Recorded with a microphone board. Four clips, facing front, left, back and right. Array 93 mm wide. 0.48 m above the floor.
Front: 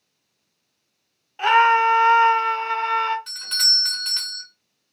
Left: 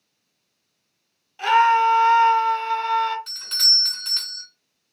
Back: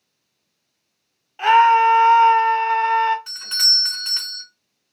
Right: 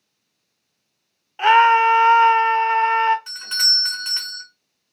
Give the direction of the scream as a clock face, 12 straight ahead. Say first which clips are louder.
Right 3 dB, back 3 dB; 3 o'clock.